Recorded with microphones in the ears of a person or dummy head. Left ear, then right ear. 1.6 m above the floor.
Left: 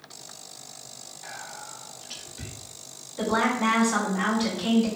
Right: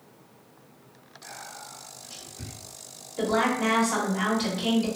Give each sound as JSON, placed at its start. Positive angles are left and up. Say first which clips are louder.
{"t": 1.2, "sound": "whispering", "louder": "left 1 dB", "side_deg": 35, "distance_m": 0.8}
{"t": 3.2, "sound": "a woman speaking", "louder": "even", "side_deg": -55, "distance_m": 1.3}